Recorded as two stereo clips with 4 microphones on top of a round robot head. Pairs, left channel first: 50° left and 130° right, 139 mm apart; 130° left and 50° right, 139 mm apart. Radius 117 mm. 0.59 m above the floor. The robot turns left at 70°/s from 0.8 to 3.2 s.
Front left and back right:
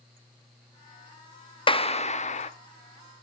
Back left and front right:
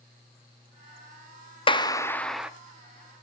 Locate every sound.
1.7 s a clap: 90° left, 0.6 m; by 2.5 s 30° left, 0.6 m